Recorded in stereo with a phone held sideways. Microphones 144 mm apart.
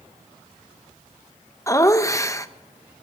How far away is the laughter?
About 0.7 m.